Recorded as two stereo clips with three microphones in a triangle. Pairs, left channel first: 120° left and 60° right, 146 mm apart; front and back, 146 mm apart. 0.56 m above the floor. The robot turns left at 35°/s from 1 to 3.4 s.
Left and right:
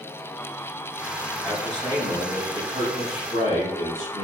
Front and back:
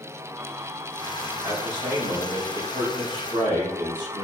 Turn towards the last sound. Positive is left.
turn(degrees=135)